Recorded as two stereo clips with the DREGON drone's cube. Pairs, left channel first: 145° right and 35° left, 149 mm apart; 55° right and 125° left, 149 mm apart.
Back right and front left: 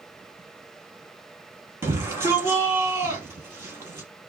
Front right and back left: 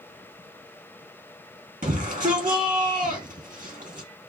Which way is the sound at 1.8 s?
105° left.